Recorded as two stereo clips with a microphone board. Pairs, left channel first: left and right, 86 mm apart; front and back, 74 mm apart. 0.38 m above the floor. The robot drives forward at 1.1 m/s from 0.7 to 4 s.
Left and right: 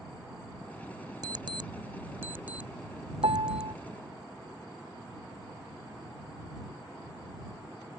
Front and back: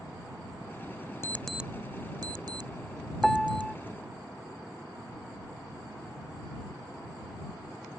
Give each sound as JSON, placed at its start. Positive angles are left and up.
{"t": 1.2, "sound": "an alarm clock", "azimuth_deg": -55}
{"t": 3.2, "sound": "a piano", "azimuth_deg": -85}